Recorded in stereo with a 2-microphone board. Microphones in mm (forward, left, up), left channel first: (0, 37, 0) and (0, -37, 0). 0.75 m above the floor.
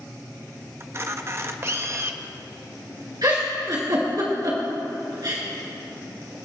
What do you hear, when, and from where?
0.8 s a camera shutter: 35° right (ahead or behind), 0.6 m
3.2 s a giggle: 60° right (ahead or behind), 3 m